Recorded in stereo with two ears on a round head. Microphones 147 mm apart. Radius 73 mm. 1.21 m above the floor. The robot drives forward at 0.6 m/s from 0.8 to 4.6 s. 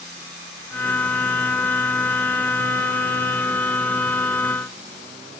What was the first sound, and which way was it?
Only background noise.